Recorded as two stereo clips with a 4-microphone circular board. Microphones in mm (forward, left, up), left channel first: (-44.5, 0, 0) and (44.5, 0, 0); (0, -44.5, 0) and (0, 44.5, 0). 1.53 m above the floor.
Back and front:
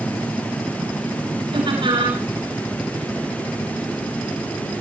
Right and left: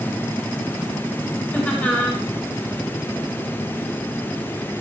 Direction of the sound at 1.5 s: 15° right.